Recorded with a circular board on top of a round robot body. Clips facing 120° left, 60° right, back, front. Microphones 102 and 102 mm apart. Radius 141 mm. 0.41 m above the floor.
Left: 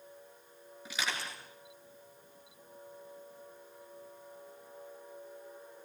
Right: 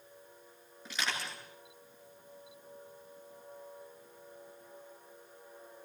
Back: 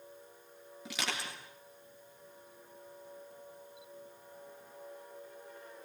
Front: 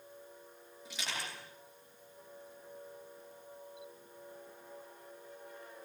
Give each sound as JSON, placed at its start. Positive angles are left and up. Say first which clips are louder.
{"t": 0.8, "sound": "crushing", "louder": "even, back 3 dB", "azimuth_deg": -160, "distance_m": 8.5}